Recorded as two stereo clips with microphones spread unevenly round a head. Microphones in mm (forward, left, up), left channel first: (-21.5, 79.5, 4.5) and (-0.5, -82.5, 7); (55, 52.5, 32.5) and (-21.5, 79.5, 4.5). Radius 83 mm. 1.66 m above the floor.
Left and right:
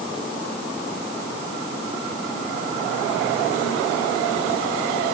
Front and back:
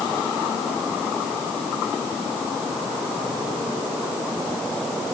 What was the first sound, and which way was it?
Only background noise.